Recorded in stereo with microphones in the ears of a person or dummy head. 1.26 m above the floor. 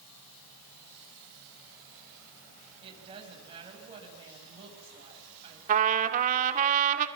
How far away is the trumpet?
About 1.7 m.